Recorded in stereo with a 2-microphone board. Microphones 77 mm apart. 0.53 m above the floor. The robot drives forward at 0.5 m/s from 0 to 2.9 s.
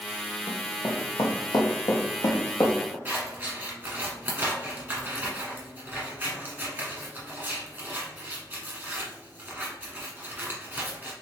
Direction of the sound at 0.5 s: 60° left (ahead or behind).